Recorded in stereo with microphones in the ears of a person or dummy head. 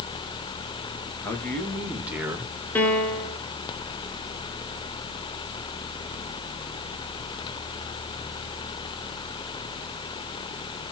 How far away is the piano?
About 1.1 m.